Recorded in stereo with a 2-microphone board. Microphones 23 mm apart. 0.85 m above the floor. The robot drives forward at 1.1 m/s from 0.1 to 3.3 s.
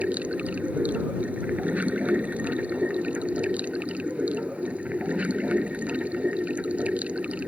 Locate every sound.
0.0 s running water: 70° right (ahead or behind)